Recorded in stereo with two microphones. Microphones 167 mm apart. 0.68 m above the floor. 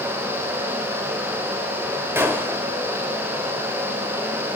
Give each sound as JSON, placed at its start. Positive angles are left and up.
{"t": 2.1, "sound": "a gunshot", "side_deg": -15, "distance_m": 2.5}